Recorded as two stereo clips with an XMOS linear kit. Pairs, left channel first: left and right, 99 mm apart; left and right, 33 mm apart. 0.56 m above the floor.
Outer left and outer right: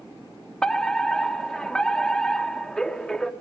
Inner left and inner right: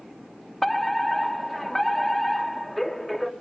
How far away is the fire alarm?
About 1.5 m.